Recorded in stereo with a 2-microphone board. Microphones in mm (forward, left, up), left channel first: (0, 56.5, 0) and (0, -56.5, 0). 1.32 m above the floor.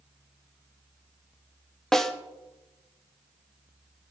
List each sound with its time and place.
1.9 s a snare drum: 5° left (ahead or behind), 0.9 m